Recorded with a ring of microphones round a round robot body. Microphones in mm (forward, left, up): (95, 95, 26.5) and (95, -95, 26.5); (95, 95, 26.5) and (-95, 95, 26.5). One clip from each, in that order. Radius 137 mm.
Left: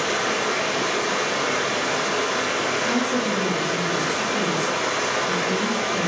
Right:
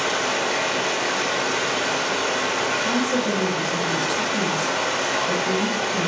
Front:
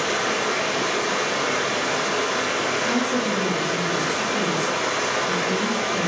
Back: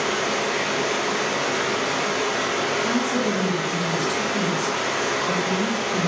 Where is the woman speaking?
130° right, 0.7 m.